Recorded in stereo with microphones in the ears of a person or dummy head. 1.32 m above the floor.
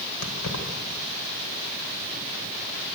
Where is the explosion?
I don't hear an explosion.